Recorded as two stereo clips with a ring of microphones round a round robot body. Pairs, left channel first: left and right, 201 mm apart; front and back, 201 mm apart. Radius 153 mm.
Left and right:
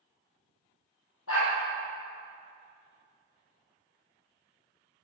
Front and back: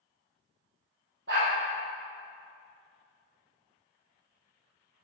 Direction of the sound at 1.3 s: 125° left.